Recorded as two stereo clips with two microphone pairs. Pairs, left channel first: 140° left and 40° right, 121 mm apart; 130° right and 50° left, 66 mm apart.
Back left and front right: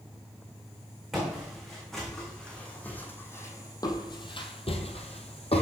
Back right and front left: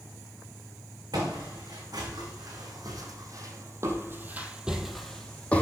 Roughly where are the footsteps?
Ahead left.